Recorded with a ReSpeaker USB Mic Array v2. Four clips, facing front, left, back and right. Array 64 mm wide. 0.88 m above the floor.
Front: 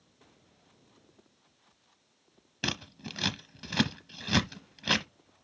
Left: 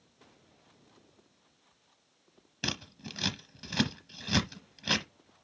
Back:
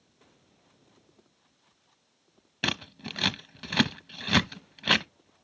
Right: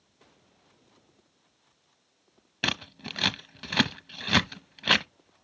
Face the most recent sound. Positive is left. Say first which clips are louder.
# right 6 dB, back 4 dB
turn(degrees=-120)